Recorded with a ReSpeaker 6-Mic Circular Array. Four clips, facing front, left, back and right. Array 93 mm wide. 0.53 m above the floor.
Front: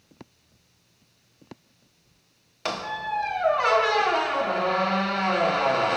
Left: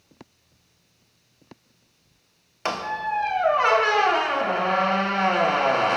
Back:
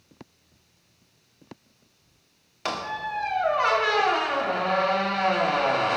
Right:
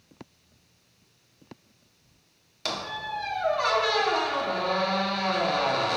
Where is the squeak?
90° left, 0.7 m.